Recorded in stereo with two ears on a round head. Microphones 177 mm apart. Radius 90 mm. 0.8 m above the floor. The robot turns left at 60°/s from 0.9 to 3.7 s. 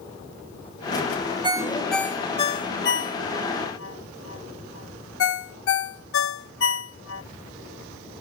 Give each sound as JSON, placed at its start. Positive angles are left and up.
{"t": 1.4, "sound": "a ringtone", "side_deg": -25}